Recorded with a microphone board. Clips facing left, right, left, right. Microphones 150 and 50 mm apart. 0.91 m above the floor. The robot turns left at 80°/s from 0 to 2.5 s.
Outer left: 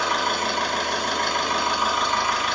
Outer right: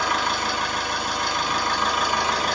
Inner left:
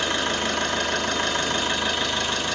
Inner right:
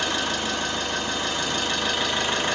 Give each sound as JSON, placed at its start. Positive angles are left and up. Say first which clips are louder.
{"t": 0.0, "sound": "an engine running", "louder": "even, inner left 2 dB", "azimuth_deg": 155, "distance_m": 4.0}